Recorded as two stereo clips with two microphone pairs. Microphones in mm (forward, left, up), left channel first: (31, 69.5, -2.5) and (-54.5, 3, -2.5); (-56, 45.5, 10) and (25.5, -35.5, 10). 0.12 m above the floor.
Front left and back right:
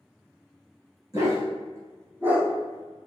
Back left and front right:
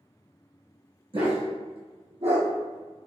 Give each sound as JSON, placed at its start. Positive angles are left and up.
{"t": 1.1, "sound": "a dog barking", "azimuth_deg": -85, "distance_m": 1.9}